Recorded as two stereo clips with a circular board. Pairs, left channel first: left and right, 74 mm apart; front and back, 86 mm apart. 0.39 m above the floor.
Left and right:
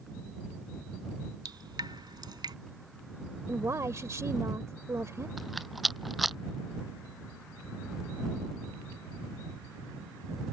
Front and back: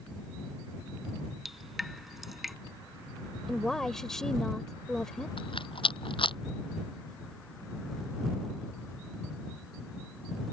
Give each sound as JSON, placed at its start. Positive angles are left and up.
{"t": 1.4, "sound": "dripping", "azimuth_deg": -95}
{"t": 3.5, "sound": "a woman speaking", "azimuth_deg": -80}
{"t": 5.4, "sound": "a rattle", "azimuth_deg": 0}